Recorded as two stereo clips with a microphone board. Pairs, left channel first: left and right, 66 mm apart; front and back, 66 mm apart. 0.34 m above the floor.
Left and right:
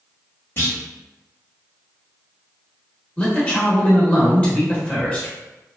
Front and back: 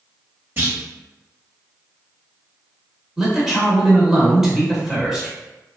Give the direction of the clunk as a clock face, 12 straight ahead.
8 o'clock.